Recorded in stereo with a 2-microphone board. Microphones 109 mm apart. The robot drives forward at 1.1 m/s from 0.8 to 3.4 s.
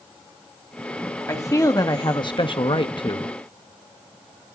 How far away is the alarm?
No alarm in this recording.